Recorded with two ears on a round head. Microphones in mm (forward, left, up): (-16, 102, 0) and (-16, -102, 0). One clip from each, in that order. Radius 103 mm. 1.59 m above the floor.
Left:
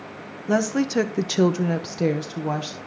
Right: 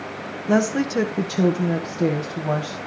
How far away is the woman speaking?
About 0.9 m.